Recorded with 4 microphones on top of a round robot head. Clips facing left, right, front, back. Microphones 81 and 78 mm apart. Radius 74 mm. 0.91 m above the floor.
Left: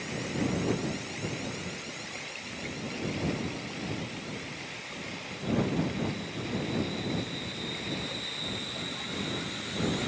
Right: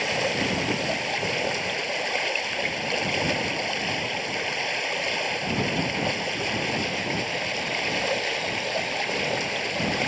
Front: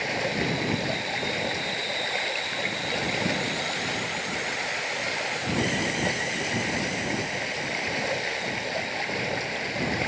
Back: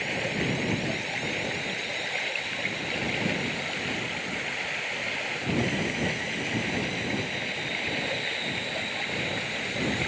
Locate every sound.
0.0 s running water: 80° right